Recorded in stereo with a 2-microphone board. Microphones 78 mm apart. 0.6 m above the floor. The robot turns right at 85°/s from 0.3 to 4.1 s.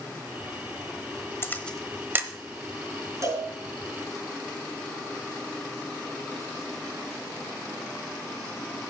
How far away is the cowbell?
About 5.5 m.